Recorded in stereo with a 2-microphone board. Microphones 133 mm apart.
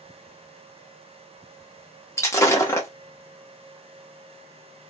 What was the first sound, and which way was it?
Breaking glass, 20° left (ahead or behind).